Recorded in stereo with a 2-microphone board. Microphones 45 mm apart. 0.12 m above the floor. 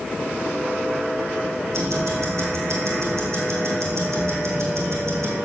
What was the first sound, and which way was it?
Ticking, 75° right (ahead or behind).